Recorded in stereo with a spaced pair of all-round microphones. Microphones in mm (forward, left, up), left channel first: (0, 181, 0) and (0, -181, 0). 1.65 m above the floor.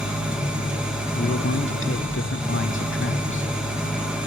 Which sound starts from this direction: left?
A man speaking, at 1.2 s.